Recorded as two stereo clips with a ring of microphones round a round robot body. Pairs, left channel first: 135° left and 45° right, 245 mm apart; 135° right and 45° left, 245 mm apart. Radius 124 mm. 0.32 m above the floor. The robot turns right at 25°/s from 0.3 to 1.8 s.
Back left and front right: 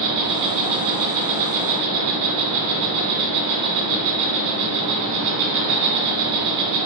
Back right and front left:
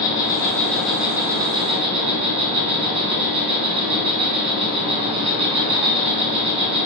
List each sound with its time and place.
0.0 s an insect: 60° right, 1.0 m; by 6.9 s 25° right, 1.0 m